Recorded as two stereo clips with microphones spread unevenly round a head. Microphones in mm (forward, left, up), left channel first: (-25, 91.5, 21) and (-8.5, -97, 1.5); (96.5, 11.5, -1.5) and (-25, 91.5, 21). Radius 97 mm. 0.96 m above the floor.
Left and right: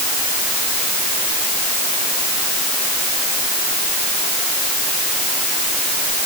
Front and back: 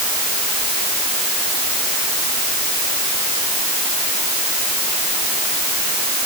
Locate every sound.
Only background noise.